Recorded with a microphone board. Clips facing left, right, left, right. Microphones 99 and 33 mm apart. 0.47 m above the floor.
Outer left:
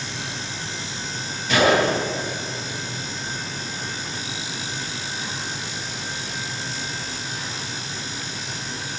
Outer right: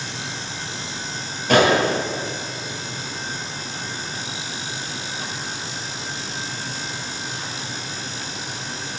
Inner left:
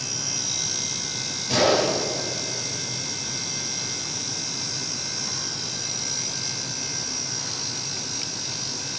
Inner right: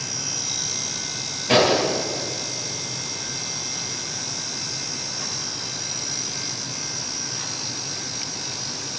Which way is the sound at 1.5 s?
50° right (ahead or behind).